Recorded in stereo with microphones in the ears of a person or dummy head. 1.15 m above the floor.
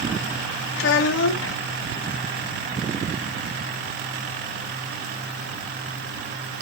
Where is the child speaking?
75° left (ahead or behind), 0.7 m.